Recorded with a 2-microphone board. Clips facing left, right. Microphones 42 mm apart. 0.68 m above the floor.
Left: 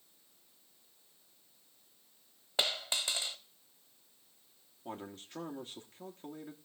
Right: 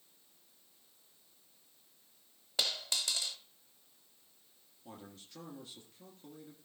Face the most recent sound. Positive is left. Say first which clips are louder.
# left 7 dB
turn(degrees=35)  # may be behind; listen again after turning